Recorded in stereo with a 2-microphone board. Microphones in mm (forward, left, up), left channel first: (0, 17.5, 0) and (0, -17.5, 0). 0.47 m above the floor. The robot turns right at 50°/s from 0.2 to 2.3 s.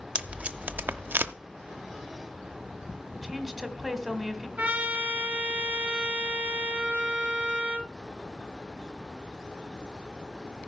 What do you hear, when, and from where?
0.1 s tape being pulled: 35° right (ahead or behind), 0.7 m; by 1.3 s 75° right (ahead or behind), 0.7 m
3.1 s a woman speaking: centre (ahead or behind), 1.4 m
4.6 s a trumpet: 30° right (ahead or behind), 3.5 m